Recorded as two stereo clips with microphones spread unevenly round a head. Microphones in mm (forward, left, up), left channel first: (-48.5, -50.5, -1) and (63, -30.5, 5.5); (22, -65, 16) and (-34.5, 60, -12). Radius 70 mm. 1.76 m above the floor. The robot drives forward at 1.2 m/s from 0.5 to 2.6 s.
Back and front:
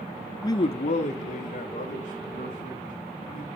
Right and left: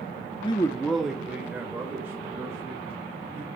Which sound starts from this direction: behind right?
A man speaking, at 0.4 s.